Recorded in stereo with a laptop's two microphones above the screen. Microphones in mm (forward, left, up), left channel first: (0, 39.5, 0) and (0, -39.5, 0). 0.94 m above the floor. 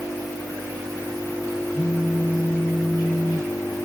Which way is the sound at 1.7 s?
30° left (ahead or behind).